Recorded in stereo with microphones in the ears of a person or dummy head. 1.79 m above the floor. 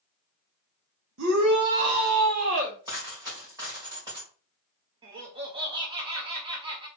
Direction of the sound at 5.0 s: 25° right (ahead or behind).